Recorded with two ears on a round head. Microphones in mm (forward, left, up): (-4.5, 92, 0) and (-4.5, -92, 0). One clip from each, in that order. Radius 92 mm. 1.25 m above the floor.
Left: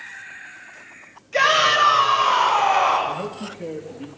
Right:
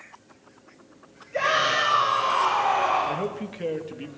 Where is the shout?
85° left, 7 m; by 3.2 s 80° left, 7 m.